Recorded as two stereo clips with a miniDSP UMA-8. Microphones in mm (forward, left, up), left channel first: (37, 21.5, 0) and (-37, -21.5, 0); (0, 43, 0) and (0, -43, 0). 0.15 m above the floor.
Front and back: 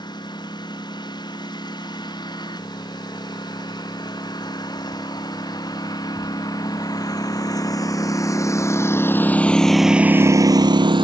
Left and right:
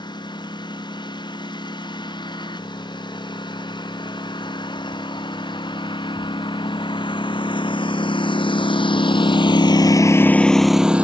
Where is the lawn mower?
65° left; by 11.0 s 165° right.